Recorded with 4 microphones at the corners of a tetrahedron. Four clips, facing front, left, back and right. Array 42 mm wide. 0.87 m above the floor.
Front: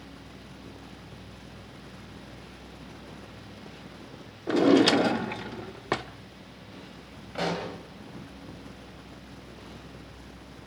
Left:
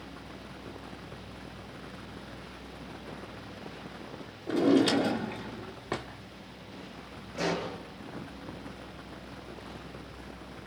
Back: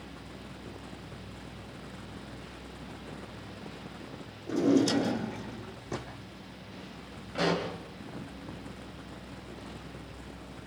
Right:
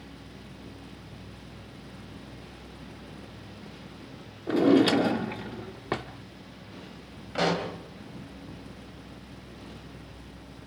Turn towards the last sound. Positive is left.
turn(degrees=-80)